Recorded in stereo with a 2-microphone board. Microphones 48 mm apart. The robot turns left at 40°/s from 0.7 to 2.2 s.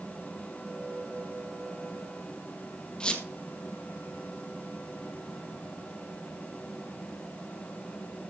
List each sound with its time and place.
3.0 s a squeak: 20° left (ahead or behind), 1.5 m